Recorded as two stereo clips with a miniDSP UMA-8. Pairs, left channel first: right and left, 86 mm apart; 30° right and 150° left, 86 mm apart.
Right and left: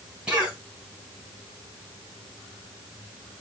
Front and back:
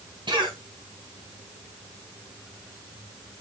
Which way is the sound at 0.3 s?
170° left.